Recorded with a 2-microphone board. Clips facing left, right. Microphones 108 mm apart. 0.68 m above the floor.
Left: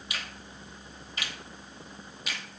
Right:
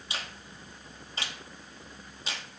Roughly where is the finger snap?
Right.